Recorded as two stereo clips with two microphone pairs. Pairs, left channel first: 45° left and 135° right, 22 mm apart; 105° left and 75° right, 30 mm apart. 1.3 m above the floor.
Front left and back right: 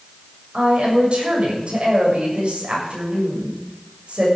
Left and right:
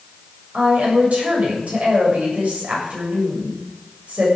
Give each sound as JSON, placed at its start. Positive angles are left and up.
{"t": 0.5, "sound": "a woman speaking", "azimuth_deg": -105, "distance_m": 7.5}